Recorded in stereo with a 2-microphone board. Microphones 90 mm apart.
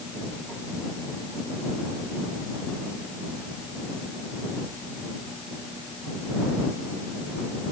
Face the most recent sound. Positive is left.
No sound to turn to.